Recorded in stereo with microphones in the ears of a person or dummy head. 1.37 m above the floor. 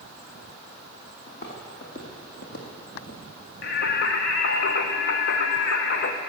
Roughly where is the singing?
Left.